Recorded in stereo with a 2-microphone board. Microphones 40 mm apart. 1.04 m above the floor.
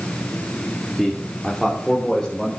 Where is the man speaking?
Centre (ahead or behind), 1.9 m; by 2.5 s 10° left (ahead or behind), 4 m.